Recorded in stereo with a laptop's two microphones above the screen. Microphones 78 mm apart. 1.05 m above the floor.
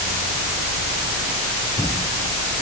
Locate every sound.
Only background noise.